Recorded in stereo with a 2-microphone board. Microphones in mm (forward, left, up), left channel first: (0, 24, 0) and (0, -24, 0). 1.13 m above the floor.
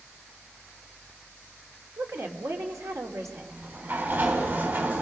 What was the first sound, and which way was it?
A woman speaking, 80° right.